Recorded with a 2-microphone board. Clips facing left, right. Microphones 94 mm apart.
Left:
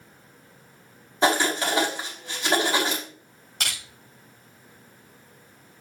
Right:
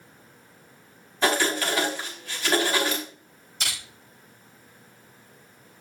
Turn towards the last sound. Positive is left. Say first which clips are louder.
# left 1 dB
turn(degrees=75)  # may be behind; listen again after turning